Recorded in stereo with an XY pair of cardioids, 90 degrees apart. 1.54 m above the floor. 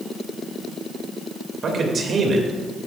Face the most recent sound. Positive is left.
turn(degrees=-55)